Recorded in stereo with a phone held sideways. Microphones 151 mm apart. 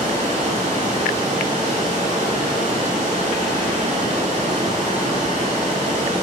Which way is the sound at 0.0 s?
50° right (ahead or behind).